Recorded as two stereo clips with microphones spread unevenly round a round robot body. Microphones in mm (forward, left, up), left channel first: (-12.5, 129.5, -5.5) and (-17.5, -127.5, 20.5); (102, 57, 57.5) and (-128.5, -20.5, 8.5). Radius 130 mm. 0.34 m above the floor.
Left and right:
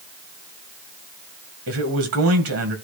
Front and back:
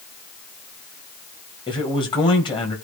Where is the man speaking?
60° right, 1.9 m.